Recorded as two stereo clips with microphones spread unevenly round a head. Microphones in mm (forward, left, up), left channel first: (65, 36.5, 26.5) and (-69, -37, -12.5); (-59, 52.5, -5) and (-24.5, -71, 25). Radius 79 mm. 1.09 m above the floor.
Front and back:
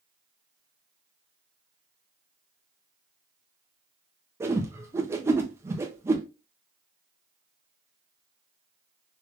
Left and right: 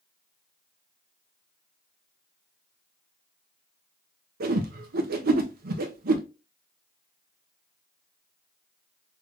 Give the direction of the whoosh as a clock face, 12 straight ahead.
3 o'clock.